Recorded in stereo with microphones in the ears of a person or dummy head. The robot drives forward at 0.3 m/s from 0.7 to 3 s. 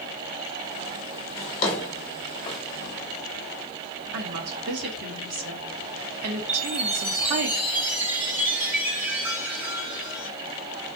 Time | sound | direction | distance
1.4 | a drawer | 25° left (ahead or behind) | 1.3 m
4.1 | a woman speaking | 50° right (ahead or behind) | 1.0 m
6.5 | a chime | centre (ahead or behind) | 1.7 m